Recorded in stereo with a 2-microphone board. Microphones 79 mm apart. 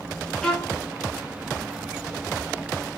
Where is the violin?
5° left (ahead or behind), 0.8 m.